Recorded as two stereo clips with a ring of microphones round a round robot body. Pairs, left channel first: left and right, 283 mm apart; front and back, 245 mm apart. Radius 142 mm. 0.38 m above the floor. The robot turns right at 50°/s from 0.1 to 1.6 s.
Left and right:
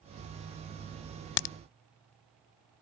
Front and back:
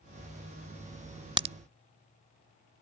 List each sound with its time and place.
1.4 s a crack: 105° left; by 1.6 s 115° left